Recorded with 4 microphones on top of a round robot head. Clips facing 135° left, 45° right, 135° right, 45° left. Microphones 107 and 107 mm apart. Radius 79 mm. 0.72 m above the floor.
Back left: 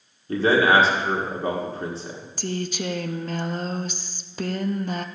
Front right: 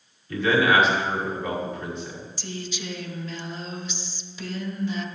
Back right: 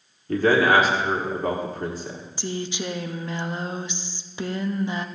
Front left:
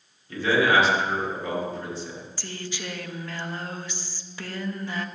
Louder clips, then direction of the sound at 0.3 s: Back left 2 dB, back right 3 dB; 175° right.